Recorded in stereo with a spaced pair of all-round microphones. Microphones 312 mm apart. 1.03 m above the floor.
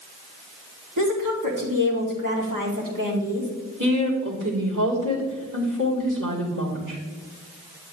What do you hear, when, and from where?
1.0 s a woman speaking: 85° right, 2 m
3.8 s a woman speaking: 75° right (ahead or behind), 3 m